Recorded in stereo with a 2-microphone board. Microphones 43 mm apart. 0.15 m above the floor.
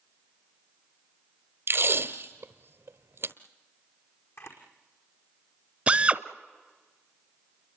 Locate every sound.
1.7 s tape being pulled: 65° right (ahead or behind), 1.1 m
4.4 s a camera shutter: 80° left, 5 m
5.9 s a drill: 30° right (ahead or behind), 0.7 m